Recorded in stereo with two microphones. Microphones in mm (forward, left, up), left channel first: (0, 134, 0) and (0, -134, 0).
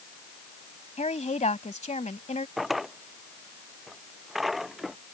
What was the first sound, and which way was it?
A woman speaking, 25° left (ahead or behind).